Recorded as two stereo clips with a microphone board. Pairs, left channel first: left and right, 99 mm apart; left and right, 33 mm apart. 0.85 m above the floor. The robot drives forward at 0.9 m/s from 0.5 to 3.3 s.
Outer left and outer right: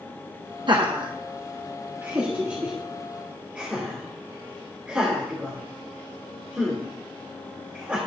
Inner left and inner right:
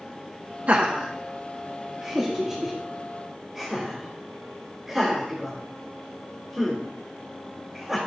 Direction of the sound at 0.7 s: 50° right (ahead or behind).